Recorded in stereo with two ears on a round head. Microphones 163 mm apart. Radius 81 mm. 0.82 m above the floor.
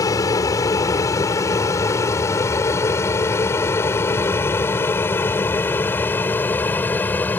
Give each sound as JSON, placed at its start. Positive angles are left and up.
{"t": 0.0, "sound": "an aircraft", "side_deg": 20}